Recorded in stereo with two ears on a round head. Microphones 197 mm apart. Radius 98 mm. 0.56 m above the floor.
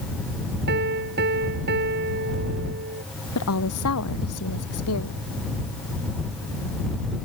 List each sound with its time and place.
0.7 s a piano: 50° right (ahead or behind)
3.4 s a woman speaking: 80° left